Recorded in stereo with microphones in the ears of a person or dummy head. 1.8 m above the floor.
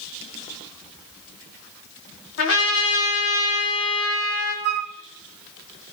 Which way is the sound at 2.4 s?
65° left (ahead or behind).